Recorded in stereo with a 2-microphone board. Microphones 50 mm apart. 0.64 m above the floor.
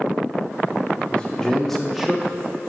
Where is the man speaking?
25° left (ahead or behind), 1.1 m; by 2.7 s 25° right (ahead or behind), 1.0 m.